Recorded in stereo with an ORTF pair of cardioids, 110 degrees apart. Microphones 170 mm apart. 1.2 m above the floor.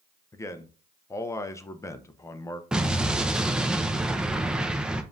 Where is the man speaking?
15° left, 0.5 m.